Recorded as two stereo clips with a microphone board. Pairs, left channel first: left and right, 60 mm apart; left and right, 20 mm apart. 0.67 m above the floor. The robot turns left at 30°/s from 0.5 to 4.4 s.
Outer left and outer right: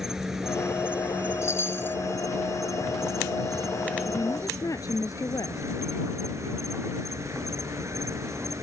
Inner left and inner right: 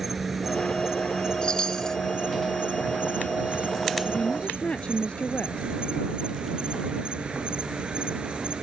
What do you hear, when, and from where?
0.0 s an insect: 5° right; by 8.6 s 125° right
1.4 s a chime: 45° left (ahead or behind); by 2.0 s 30° left (ahead or behind)
4.0 s a woman speaking: 75° left (ahead or behind); by 5.6 s 65° left (ahead or behind)